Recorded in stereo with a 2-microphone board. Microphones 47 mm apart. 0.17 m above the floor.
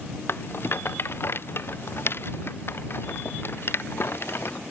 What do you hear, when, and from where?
0.3 s a rattle: 55° left (ahead or behind)